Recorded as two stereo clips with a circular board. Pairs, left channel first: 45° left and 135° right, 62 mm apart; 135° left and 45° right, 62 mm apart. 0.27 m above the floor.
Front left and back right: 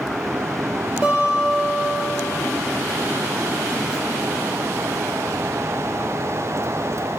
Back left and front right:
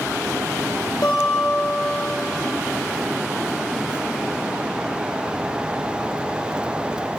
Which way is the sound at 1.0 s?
150° left.